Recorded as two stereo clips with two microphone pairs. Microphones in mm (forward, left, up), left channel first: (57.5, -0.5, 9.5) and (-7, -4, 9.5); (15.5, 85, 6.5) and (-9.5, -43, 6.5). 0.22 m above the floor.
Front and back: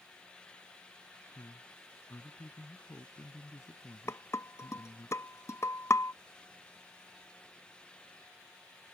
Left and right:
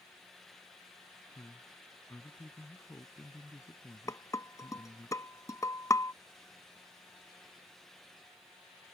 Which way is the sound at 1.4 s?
20° left.